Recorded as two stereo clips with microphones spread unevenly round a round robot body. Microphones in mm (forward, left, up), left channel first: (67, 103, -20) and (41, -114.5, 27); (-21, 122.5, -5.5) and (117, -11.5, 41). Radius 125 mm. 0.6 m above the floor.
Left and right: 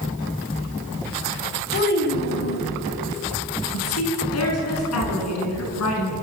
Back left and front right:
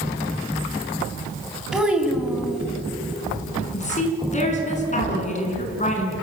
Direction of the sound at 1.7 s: 45° left.